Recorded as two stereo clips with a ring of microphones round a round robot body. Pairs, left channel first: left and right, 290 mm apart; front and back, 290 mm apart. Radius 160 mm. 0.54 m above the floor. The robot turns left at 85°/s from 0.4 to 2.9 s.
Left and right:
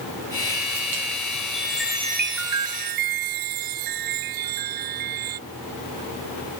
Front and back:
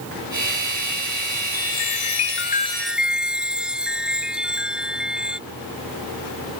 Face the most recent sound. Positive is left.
turn(degrees=-95)